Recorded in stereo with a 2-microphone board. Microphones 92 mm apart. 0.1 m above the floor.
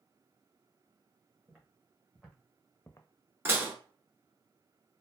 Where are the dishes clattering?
25° right (ahead or behind), 0.8 m.